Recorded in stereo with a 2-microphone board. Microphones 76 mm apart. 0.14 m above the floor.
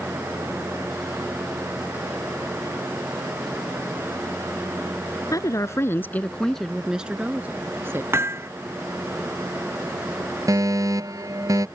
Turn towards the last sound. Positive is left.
turn(degrees=-50)  # may be behind; listen again after turning